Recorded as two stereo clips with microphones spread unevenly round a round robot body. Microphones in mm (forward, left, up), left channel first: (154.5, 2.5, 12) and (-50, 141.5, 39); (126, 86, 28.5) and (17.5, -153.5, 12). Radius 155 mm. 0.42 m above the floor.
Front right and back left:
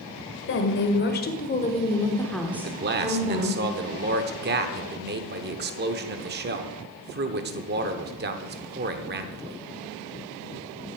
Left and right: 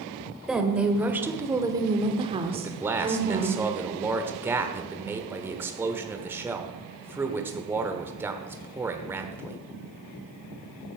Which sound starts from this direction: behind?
A man speaking, at 2.5 s.